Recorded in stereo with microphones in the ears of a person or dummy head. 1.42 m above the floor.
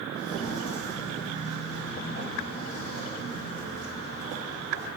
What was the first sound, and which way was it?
Footsteps, 25° left (ahead or behind).